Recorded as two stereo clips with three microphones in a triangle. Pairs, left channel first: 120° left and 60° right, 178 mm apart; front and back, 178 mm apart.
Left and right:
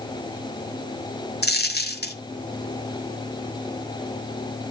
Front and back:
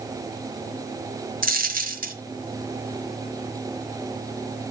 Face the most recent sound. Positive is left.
turn(degrees=145)